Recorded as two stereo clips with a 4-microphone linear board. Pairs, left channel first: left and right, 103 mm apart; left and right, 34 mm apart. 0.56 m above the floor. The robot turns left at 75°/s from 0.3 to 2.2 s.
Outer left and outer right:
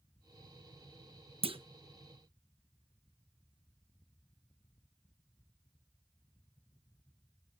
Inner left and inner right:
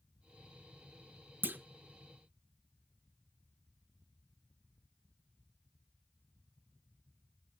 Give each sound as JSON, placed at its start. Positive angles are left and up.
{"t": 1.4, "sound": "a clunk", "side_deg": -65, "distance_m": 0.5}